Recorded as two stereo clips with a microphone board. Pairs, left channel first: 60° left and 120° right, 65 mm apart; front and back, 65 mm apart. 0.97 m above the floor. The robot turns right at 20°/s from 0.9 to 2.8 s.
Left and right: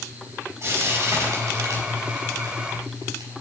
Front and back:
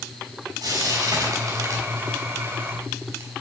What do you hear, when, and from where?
0.6 s frying: 170° right, 5 m; by 3.3 s 130° right, 5 m